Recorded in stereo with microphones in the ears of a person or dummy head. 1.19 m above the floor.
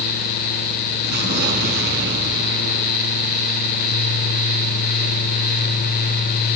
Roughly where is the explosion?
Right.